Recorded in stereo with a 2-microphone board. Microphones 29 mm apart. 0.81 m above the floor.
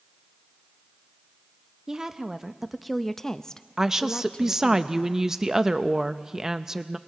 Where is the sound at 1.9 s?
20° right (ahead or behind), 0.9 m; by 4.8 s 35° left (ahead or behind), 1.1 m.